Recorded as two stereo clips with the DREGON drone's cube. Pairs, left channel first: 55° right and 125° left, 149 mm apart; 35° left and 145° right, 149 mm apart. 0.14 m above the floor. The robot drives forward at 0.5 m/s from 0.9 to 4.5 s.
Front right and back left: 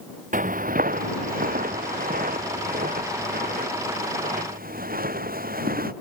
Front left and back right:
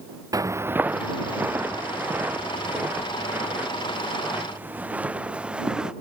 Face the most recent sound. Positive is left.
turn(degrees=130)